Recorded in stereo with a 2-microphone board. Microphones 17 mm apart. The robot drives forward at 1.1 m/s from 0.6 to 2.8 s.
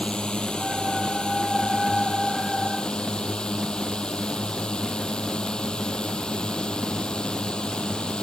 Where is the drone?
65° left (ahead or behind); by 8.2 s 60° left (ahead or behind).